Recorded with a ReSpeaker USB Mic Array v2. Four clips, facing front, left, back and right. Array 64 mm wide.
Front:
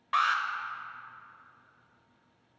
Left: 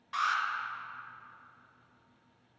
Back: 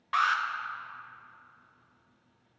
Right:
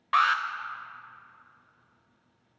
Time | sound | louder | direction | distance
0.1 | an alarm | right 7 dB, even | 90° right | 0.5 m